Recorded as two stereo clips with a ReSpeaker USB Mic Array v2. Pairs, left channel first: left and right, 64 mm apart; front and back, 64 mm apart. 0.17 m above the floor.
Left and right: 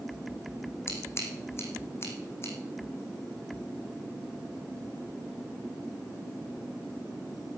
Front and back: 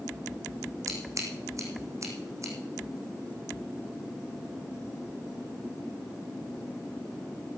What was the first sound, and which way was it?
Scissors, 140° left.